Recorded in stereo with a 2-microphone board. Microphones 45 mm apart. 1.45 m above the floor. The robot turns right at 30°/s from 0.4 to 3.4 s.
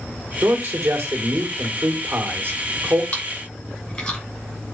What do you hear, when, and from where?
0.4 s a man speaking: 110° right, 2 m; by 3.0 s 30° right, 2 m
3.1 s chewing: 40° left (ahead or behind), 3.5 m; by 4.2 s 30° left (ahead or behind), 3.5 m